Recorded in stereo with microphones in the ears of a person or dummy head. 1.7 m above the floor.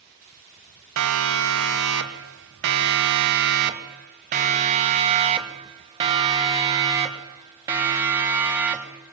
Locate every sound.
1.0 s a siren: 85° right, 2.5 m; by 9.1 s 10° right (ahead or behind), 4 m